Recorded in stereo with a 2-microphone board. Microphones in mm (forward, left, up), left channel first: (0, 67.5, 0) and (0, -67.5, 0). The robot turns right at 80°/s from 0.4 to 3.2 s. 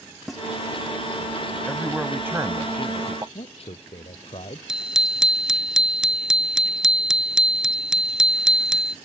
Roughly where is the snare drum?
Centre.